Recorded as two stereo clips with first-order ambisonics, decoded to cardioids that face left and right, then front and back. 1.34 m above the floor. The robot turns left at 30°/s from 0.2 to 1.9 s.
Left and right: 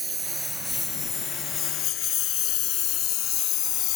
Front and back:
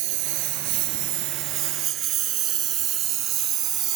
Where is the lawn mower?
170° right; by 4.0 s 130° left.